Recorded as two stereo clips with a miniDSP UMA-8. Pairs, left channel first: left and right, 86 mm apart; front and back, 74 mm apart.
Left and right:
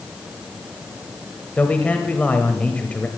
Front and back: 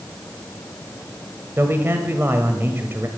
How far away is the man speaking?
About 1.2 m.